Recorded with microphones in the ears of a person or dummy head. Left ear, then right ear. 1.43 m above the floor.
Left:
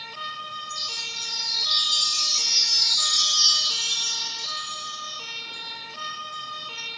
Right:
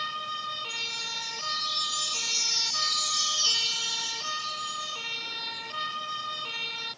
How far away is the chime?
About 1.1 m.